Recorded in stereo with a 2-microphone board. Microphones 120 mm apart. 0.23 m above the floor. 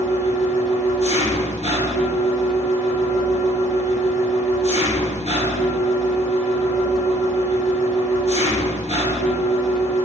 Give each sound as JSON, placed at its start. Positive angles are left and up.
{"t": 0.0, "sound": "an engine running", "side_deg": 70, "distance_m": 1.1}